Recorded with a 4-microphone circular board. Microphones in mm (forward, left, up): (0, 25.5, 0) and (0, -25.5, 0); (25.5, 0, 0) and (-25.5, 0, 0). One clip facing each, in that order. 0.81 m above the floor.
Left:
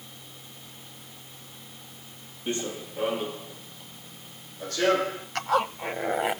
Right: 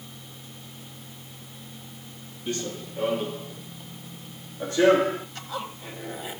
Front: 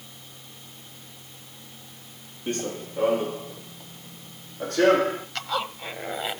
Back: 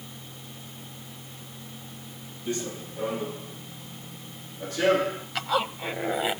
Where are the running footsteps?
25° left, 1.4 m; by 5.2 s 30° right, 3 m.